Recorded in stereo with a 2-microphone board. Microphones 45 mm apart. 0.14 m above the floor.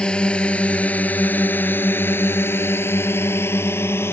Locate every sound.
0.0 s a drone: 20° left (ahead or behind); by 4.1 s 60° left (ahead or behind)